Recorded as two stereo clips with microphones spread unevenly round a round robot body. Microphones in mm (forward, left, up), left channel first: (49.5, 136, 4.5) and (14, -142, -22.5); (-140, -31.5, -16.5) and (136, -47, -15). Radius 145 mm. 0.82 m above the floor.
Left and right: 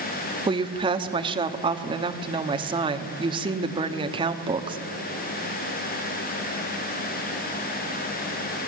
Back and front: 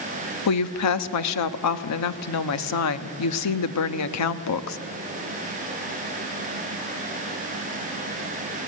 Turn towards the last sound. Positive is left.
turn(degrees=-165)